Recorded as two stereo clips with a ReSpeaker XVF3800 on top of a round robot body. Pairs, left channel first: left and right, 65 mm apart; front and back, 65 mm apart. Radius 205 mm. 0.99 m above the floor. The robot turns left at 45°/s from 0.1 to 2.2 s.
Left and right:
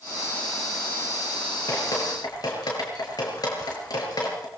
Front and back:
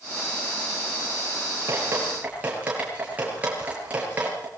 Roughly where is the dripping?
Behind left.